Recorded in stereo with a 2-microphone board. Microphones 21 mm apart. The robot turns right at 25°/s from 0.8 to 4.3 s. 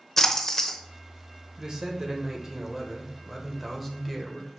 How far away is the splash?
About 0.9 m.